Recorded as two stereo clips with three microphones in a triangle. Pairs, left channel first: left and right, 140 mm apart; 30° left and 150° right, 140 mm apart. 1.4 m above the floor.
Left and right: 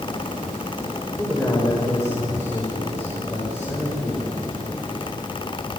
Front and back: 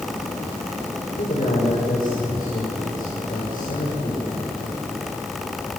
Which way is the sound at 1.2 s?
20° left.